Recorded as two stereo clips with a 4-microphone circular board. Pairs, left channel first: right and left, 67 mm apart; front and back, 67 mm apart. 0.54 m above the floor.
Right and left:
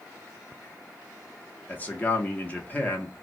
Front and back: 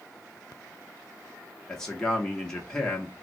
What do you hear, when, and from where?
1.7 s a man speaking: 70° right, 0.8 m